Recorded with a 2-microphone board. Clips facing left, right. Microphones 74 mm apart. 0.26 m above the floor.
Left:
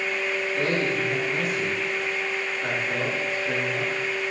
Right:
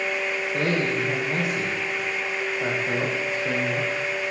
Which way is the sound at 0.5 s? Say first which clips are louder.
Right 2 dB; 80° right.